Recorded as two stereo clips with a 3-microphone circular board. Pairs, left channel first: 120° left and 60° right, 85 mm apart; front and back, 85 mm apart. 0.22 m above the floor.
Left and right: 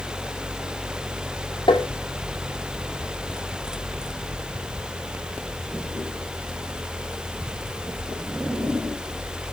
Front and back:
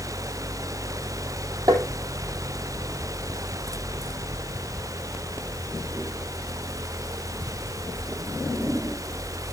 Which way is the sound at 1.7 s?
140° left.